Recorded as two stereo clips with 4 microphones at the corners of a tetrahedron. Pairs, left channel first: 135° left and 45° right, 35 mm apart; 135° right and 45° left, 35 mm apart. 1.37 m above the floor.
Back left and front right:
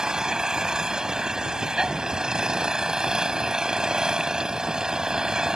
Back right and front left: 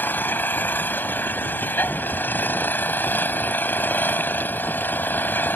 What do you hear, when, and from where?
0.0 s an engine running: 115° right